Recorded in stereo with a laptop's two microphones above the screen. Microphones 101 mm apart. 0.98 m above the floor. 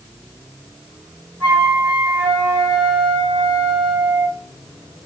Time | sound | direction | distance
1.4 | a flute | 20° right (ahead or behind) | 2.5 m